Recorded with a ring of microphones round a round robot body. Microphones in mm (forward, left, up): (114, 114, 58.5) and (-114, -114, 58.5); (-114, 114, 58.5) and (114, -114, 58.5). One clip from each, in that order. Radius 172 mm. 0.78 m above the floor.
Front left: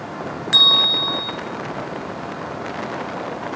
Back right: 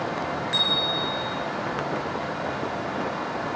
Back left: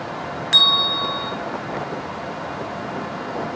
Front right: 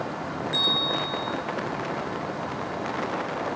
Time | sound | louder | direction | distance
0.5 | a bell | front left 11 dB, back left 9 dB | 100° left | 2.5 m